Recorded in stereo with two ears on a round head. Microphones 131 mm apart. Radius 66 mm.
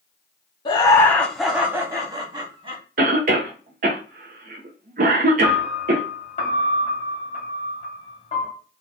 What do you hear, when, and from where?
0.7 s laughter: 30° left (ahead or behind), 0.7 m; by 2.8 s 35° right (ahead or behind), 1.2 m
3.0 s a cough: 60° right (ahead or behind), 0.5 m
5.4 s a piano: 45° left (ahead or behind), 1.1 m